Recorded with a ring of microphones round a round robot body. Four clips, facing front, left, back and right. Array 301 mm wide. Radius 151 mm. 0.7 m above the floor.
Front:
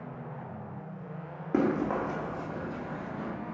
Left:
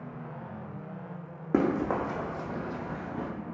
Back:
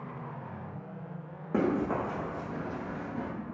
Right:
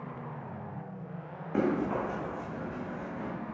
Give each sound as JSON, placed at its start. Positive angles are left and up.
{"t": 1.5, "sound": "running footsteps", "azimuth_deg": 80, "distance_m": 2.0}